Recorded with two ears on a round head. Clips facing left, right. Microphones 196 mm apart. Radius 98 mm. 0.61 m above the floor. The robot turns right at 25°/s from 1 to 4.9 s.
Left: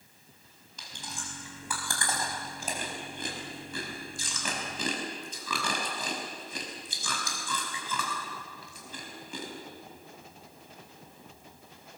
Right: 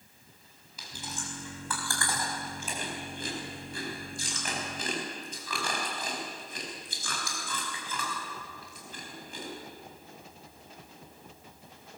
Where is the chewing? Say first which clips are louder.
Right 3 dB; 5° right (ahead or behind), 5 m; by 9.5 s 80° left, 5 m.